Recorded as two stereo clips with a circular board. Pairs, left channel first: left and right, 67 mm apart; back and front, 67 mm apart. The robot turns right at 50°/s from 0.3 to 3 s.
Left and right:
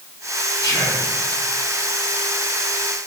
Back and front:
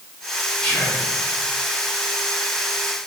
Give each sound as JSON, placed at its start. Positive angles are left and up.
{"t": 0.6, "sound": "whispering", "azimuth_deg": 105, "distance_m": 1.8}